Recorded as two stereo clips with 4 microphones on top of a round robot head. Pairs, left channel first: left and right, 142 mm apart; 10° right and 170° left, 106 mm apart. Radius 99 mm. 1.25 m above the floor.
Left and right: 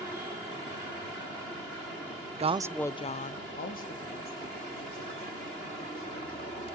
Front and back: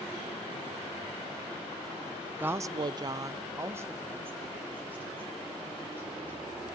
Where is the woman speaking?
115° right, 0.7 m; by 6.7 s 95° left, 5 m.